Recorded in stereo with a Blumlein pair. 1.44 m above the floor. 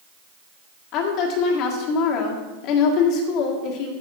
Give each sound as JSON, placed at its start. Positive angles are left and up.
{"t": 0.9, "sound": "a woman speaking", "azimuth_deg": 40, "distance_m": 1.7}